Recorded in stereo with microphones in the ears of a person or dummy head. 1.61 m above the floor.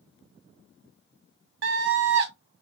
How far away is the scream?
About 1.0 m.